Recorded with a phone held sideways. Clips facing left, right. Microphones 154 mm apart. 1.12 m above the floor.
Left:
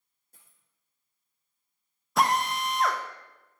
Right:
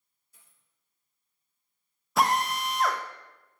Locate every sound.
0.3 s a dropped coin: 55° left (ahead or behind), 4.5 m
2.2 s a drill: centre (ahead or behind), 0.9 m